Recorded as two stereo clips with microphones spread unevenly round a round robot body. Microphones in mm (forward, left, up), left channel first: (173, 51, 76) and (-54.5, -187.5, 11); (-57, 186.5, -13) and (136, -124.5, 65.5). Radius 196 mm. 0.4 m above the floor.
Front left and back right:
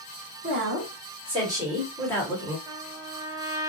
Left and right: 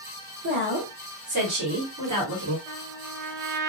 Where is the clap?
No clap in this recording.